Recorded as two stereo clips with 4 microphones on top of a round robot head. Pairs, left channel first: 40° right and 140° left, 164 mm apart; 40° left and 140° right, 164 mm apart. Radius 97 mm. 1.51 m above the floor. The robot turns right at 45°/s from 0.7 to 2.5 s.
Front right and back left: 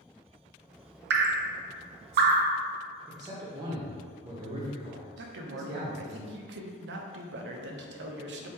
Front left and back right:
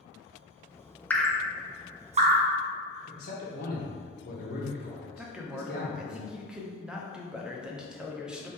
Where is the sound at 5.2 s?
135° left, 0.6 m.